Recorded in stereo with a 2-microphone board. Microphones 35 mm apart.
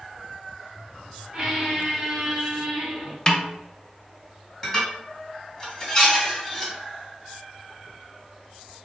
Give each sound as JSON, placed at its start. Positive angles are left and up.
{"t": 1.3, "sound": "a squeak", "side_deg": -25, "distance_m": 1.0}
{"t": 3.3, "sound": "a snare drum", "side_deg": 25, "distance_m": 0.5}
{"t": 4.6, "sound": "dishes clattering", "side_deg": 10, "distance_m": 1.8}